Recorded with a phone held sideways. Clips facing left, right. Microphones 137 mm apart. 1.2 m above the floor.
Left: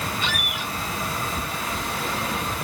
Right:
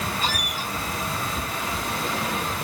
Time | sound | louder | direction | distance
0.2 | a squeak | right 1 dB | 40° right (ahead or behind) | ?